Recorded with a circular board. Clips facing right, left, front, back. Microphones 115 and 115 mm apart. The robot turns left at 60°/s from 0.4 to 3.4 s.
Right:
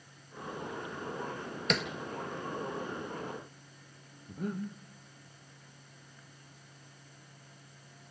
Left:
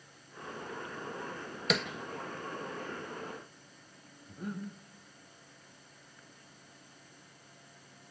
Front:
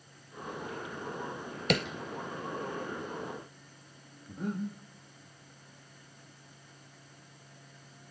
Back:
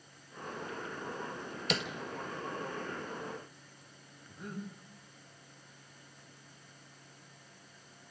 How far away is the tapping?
About 1.0 m.